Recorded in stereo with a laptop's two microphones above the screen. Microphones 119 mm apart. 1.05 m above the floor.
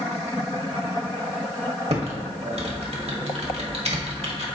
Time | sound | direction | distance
1.9 | typing on a keyboard | 60° right (ahead or behind) | 1.4 m